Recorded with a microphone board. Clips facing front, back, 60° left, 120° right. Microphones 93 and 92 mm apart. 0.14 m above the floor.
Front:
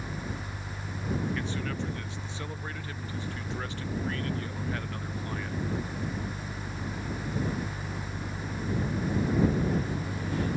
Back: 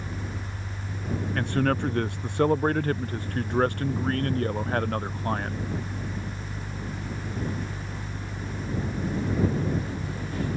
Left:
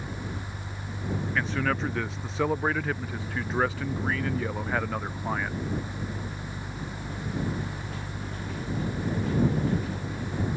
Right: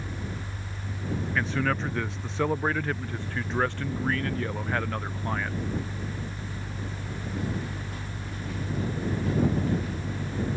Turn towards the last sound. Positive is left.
turn(degrees=145)